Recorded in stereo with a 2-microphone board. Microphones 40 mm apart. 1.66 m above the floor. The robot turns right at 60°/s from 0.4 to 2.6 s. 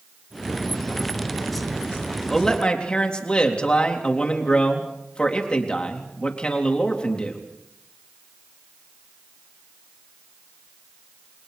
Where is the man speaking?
10° left (ahead or behind), 3.5 m; by 7.4 s 25° left (ahead or behind), 3.5 m.